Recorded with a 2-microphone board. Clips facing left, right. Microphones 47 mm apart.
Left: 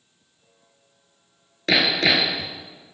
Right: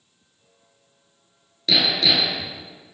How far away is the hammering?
About 0.9 m.